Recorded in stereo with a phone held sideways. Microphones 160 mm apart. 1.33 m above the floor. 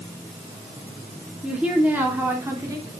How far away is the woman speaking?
About 3 m.